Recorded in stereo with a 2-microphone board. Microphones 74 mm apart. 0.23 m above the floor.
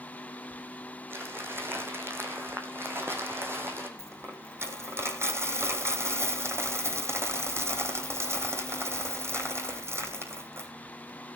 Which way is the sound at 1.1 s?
30° right (ahead or behind).